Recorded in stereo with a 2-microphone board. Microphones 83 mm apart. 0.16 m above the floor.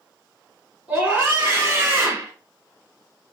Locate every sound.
0.9 s a scream: 5° right (ahead or behind), 3 m; by 2.3 s 15° right (ahead or behind), 2.5 m